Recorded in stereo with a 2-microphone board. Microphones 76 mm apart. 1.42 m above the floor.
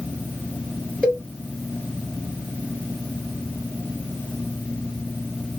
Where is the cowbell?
10° right (ahead or behind), 2 m.